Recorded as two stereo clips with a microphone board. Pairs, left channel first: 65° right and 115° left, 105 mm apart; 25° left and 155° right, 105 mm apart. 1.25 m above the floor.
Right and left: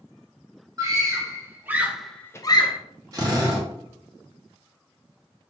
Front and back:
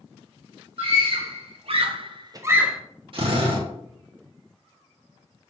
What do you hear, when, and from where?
0.8 s a scream: 170° left, 1.6 m; by 2.8 s 70° right, 0.6 m
3.1 s a drill: 165° left, 1.3 m